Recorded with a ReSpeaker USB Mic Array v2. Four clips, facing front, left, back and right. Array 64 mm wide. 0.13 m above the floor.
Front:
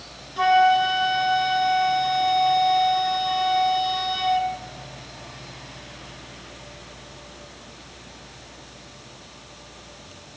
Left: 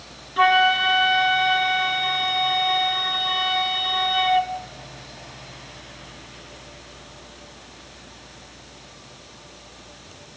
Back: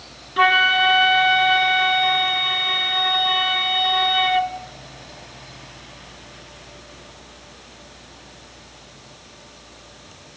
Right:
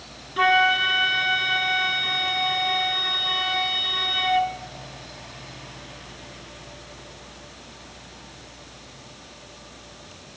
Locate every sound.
0.4 s a flute: straight behind, 0.8 m